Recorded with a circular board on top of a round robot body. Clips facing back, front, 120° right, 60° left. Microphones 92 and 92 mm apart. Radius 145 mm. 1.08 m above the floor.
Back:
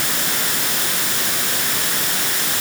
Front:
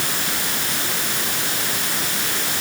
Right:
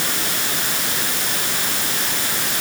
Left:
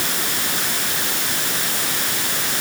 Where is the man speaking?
No man speaking in this recording.